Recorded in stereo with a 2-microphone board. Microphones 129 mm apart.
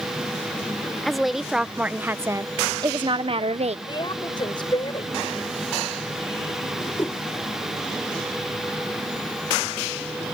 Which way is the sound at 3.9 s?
40° left (ahead or behind).